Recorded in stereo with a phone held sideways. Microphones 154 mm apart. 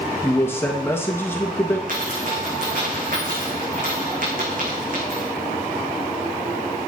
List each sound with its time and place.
0.2 s a man speaking: 15° left (ahead or behind), 1.2 m
1.9 s a dropped coin: 65° right (ahead or behind), 5.5 m